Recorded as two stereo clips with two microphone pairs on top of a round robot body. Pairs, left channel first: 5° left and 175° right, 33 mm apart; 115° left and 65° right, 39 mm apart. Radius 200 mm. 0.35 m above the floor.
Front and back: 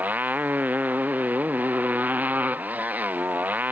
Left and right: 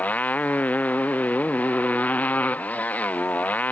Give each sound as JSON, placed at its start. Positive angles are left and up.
{"t": 0.0, "sound": "a motorcycle", "azimuth_deg": 155}